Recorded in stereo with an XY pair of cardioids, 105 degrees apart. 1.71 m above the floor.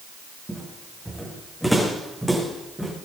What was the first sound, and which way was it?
Footsteps, straight ahead.